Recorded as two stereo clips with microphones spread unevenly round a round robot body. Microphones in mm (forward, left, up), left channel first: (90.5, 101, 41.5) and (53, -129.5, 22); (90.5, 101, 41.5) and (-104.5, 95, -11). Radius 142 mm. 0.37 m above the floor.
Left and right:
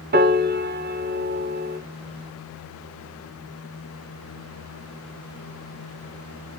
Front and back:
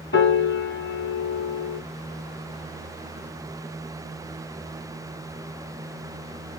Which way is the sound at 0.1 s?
55° right.